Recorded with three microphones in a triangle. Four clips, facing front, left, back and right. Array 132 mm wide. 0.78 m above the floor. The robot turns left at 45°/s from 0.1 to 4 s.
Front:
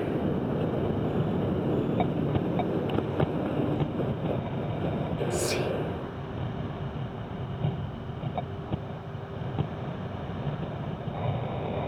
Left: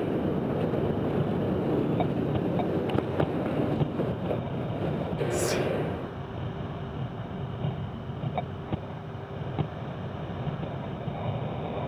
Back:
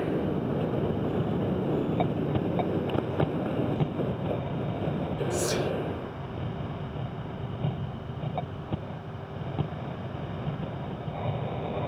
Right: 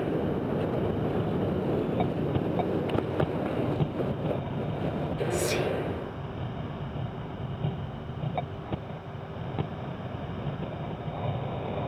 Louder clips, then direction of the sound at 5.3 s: Left 1 dB, back 1 dB; 115° left.